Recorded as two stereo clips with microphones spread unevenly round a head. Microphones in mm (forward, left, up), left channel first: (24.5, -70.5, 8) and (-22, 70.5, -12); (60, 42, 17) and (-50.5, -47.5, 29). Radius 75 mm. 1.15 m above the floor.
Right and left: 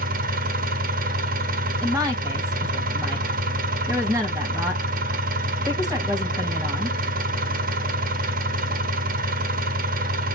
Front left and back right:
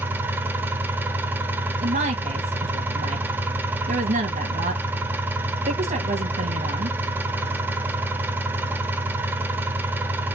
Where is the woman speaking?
175° right, 1.4 m.